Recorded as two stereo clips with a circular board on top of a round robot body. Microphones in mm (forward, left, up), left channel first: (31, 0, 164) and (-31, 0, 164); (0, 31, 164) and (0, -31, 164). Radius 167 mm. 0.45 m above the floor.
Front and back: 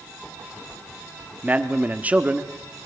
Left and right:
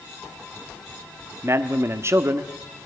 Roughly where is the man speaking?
Behind right.